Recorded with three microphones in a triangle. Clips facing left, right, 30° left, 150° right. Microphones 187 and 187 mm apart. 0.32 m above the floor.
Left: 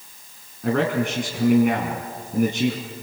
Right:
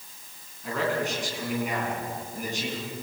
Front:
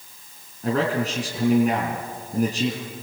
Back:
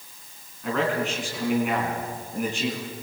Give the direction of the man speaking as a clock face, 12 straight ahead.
9 o'clock.